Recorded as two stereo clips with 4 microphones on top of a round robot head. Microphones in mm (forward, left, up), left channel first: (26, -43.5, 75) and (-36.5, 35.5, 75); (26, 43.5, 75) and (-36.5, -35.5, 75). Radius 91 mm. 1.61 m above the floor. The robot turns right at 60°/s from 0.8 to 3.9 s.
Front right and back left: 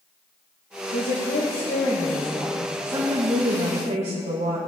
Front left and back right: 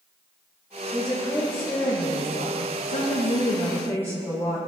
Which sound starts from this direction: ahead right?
A woman speaking, at 0.9 s.